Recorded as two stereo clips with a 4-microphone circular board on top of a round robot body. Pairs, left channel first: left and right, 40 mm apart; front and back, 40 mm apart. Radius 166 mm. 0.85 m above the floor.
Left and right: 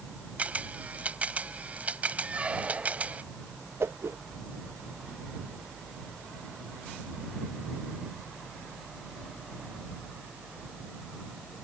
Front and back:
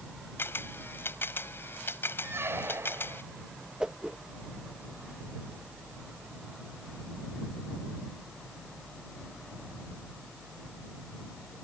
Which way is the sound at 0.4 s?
30° right.